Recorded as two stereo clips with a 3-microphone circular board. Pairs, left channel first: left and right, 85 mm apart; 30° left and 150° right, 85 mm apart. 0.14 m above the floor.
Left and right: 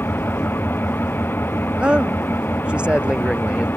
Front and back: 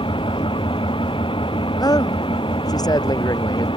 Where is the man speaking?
10° right.